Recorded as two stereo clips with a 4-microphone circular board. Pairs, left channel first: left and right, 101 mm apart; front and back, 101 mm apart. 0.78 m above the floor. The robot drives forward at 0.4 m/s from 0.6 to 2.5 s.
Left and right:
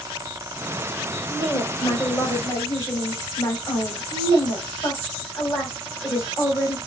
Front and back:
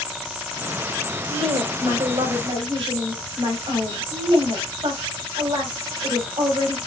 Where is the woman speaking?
150° left, 2.5 m; by 6.8 s 155° left, 3 m.